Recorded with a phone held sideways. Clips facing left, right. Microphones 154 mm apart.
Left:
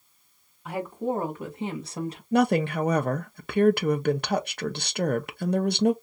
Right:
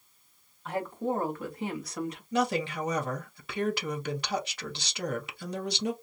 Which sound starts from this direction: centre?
A woman speaking, at 0.7 s.